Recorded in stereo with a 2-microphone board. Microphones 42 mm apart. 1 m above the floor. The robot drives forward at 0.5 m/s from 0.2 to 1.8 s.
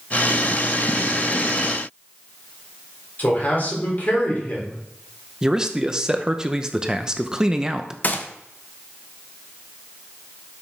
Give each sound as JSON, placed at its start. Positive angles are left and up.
{"t": 3.2, "sound": "a man speaking", "side_deg": 45, "distance_m": 3.5}
{"t": 5.4, "sound": "a man speaking", "side_deg": -15, "distance_m": 0.8}
{"t": 8.0, "sound": "a gunshot", "side_deg": 45, "distance_m": 0.9}